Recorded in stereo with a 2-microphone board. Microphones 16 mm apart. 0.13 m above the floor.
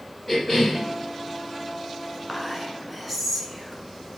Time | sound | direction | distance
0.3 | a cough | 15° left (ahead or behind) | 2 m
2.3 | whispering | 5° right (ahead or behind) | 1.3 m